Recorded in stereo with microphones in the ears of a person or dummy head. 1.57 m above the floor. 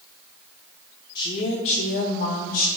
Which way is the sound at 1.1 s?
15° left (ahead or behind).